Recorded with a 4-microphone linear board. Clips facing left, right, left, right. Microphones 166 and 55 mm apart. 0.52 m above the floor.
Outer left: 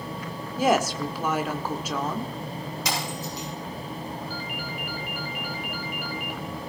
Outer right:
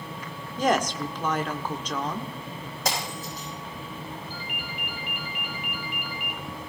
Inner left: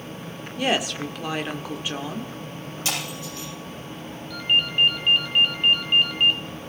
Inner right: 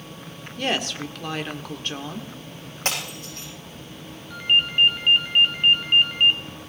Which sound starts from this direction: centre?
A woman speaking, at 0.6 s.